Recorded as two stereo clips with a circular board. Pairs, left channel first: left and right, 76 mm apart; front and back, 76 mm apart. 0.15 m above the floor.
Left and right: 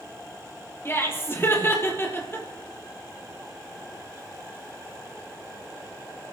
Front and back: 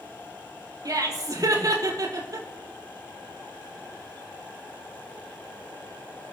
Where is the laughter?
145° left, 4 m.